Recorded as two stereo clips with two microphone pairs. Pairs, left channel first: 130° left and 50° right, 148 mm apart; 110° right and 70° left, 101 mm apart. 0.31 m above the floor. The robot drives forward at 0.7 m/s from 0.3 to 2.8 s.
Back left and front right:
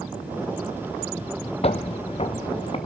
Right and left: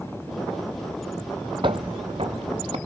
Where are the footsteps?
95° left, 0.6 m; by 2.8 s 85° left, 1.6 m.